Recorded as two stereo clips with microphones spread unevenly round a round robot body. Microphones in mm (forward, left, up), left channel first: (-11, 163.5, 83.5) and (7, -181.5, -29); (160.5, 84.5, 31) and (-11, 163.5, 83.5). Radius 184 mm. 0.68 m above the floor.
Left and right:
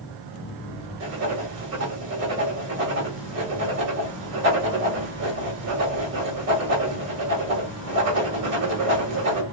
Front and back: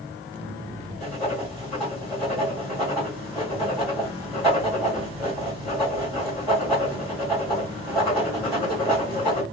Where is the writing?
110° right, 1.9 m.